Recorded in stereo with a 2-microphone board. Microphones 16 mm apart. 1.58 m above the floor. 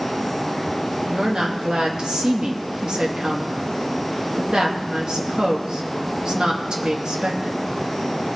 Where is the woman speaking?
45° right (ahead or behind), 2.5 m.